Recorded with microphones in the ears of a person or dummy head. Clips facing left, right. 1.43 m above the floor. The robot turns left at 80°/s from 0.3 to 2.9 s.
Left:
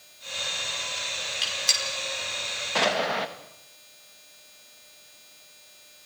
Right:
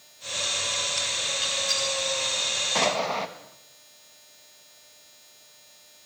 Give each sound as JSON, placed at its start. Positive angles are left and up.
{"t": 1.4, "sound": "a gunshot", "side_deg": 65, "distance_m": 4.5}
{"t": 2.8, "sound": "an explosion", "side_deg": 0, "distance_m": 1.5}